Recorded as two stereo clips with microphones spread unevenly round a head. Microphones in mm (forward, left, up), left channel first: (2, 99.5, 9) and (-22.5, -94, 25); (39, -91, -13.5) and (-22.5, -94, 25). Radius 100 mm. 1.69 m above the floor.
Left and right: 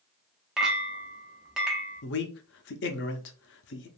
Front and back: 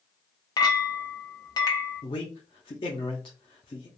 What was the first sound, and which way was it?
A clink, 25° right.